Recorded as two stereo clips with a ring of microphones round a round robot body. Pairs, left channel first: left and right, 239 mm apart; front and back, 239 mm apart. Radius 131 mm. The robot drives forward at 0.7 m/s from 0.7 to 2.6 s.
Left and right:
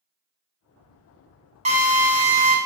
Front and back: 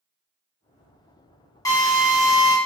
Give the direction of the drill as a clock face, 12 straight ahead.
2 o'clock.